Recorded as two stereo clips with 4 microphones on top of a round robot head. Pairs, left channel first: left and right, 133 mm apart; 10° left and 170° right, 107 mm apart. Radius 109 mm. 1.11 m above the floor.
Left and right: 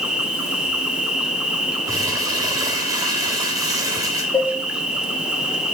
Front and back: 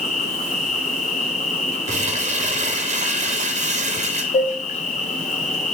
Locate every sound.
0.0 s an insect: 5° right, 1.9 m
1.9 s crumpling: 160° right, 1.6 m
4.3 s dishes clattering: 25° left, 2 m